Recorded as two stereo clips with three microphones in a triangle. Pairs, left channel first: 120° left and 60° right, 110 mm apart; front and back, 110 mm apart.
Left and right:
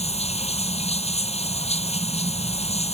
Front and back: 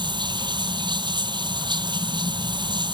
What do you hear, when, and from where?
0.0 s running water: 135° left